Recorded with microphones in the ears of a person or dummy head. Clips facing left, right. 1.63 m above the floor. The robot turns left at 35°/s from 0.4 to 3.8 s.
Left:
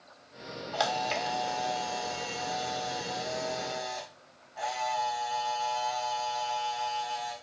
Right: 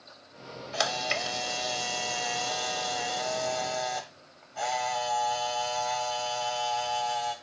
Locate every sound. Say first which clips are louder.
0.7 s a camera shutter: left 1 dB; 25° right, 1.3 m; by 7.3 s 130° right, 1.3 m